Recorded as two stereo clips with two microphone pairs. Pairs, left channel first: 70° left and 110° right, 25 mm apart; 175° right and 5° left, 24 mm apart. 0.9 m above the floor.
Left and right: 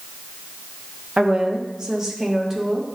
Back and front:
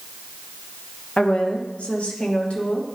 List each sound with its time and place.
1.2 s a woman speaking: 160° right, 0.8 m; by 2.9 s 170° left, 1.5 m